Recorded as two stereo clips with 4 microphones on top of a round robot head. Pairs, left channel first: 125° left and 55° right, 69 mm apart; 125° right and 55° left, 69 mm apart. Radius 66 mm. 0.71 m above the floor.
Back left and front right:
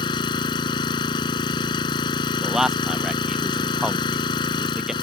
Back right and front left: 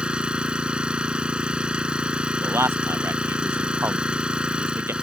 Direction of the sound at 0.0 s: 135° left.